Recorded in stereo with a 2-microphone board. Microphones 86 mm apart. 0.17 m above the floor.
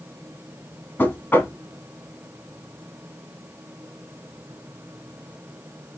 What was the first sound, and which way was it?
Knocking, 25° left (ahead or behind).